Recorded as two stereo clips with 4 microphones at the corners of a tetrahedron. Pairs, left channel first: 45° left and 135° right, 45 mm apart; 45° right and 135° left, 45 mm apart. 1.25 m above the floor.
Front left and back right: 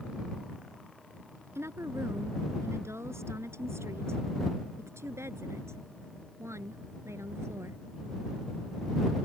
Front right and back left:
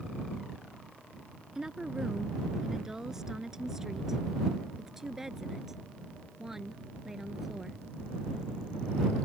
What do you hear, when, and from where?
1.6 s a woman speaking: 145° right